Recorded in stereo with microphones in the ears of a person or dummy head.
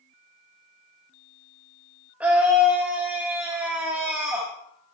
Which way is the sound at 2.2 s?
10° right (ahead or behind).